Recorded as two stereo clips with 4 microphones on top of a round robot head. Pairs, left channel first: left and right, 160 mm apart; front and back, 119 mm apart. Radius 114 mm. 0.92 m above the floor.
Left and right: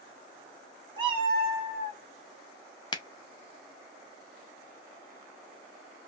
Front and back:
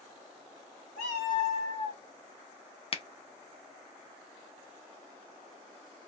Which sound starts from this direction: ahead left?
A finger snap, at 2.9 s.